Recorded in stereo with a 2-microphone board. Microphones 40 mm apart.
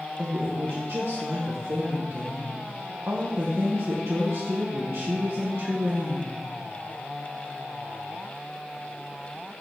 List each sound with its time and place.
0.2 s a woman speaking: 70° right (ahead or behind), 1.0 m